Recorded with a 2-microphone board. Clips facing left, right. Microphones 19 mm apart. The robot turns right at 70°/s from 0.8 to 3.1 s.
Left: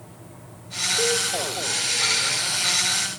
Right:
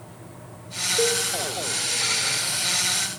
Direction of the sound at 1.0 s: 25° right (ahead or behind).